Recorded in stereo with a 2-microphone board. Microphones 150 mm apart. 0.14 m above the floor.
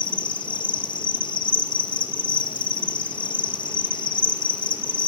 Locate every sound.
0.0 s an insect: 35° left (ahead or behind), 0.8 m